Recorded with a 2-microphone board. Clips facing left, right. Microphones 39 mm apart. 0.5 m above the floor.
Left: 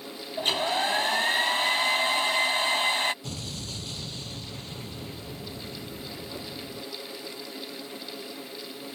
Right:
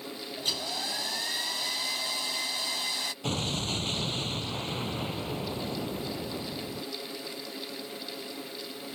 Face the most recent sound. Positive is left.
turn(degrees=-50)  # may be behind; listen again after turning